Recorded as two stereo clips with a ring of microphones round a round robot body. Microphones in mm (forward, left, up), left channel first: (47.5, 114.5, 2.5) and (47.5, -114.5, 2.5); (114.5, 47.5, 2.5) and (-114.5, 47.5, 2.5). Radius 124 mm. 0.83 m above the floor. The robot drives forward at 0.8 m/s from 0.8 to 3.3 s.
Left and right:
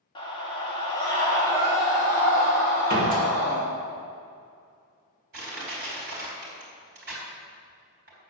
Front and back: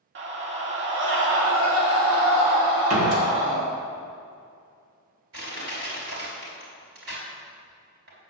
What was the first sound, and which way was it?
A scream, 160° left.